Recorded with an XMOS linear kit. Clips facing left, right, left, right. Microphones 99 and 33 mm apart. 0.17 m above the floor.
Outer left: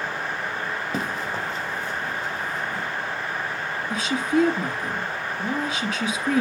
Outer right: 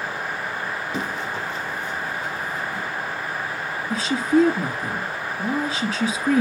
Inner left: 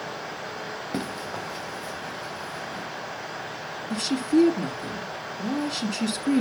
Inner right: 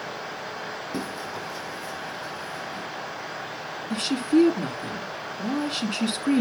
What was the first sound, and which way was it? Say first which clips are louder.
Running footsteps: outer left 1 dB, inner left 2 dB; 45° left (ahead or behind).